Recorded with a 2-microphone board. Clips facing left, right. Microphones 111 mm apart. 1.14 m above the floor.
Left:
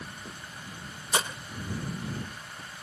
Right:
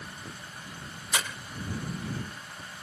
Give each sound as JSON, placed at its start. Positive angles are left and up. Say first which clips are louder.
{"t": 1.1, "sound": "breaking glass", "louder": "left 3 dB", "side_deg": 30}